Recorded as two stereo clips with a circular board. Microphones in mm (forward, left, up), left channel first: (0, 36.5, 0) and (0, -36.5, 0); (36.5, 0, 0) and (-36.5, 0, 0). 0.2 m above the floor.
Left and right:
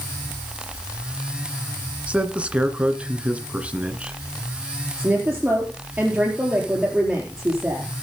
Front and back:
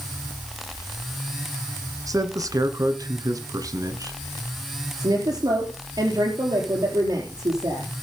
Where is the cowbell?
No cowbell in this recording.